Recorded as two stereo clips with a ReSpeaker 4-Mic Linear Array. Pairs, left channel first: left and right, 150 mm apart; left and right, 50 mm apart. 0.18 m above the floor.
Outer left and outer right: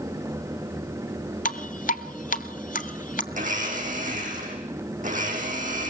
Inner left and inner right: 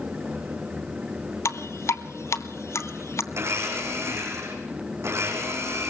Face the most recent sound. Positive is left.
turn(degrees=-60)  # may be behind; listen again after turning